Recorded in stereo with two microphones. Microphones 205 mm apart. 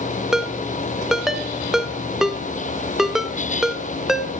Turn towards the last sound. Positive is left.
turn(degrees=0)  # may be behind; listen again after turning